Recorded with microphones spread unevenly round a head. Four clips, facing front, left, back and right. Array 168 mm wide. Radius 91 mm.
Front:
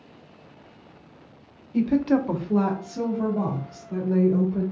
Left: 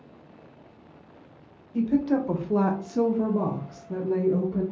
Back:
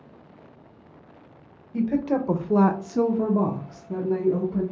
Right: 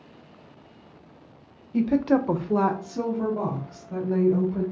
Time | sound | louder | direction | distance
1.7 | a woman speaking | right 2 dB, front 3 dB | 85° right | 0.7 m